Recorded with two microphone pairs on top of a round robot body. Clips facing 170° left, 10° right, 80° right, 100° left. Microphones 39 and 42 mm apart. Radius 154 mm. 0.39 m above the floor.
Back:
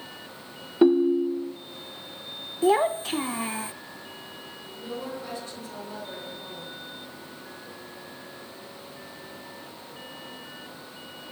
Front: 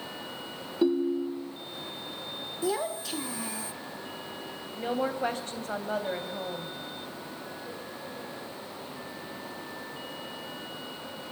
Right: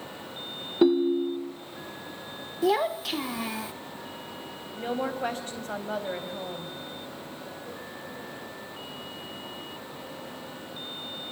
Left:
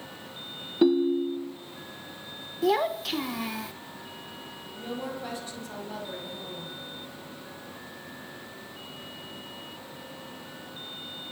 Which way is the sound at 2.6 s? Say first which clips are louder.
Back 9 dB, even; 170° right.